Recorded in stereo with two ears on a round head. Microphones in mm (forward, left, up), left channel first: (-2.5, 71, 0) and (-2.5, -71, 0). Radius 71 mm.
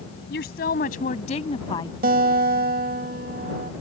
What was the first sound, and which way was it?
A woman speaking, 70° left (ahead or behind).